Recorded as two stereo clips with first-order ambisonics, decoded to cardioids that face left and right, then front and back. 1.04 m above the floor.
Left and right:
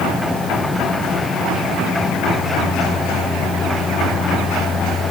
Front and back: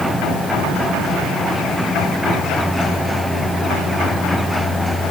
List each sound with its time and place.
Only background noise.